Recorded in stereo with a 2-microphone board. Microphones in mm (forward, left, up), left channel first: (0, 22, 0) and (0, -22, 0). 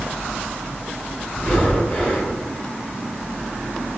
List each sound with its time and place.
1.3 s breathing: 30° left (ahead or behind), 1.7 m